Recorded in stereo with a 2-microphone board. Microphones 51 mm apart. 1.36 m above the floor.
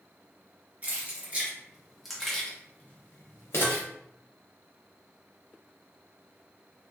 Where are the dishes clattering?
30° right (ahead or behind), 1.2 m.